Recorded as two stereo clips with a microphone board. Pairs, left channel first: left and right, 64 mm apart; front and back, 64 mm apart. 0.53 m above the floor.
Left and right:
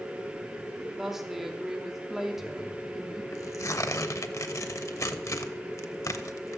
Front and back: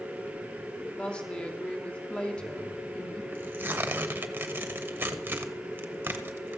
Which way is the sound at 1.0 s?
20° right.